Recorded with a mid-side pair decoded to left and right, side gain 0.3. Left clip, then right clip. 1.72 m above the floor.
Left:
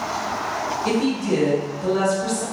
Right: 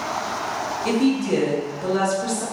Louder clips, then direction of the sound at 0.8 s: Right 3 dB; 35° right.